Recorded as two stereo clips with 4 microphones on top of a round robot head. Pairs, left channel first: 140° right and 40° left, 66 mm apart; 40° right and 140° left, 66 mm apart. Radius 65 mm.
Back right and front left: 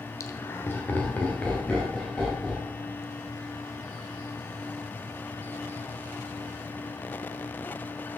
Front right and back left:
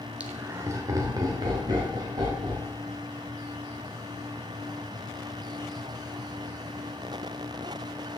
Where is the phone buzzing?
No phone buzzing in this recording.